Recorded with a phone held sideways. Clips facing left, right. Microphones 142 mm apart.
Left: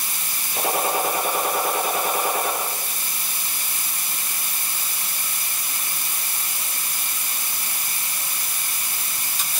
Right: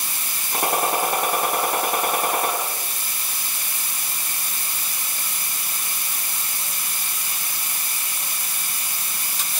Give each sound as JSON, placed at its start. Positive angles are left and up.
{"t": 0.5, "sound": "a gunshot", "side_deg": -70, "distance_m": 6.5}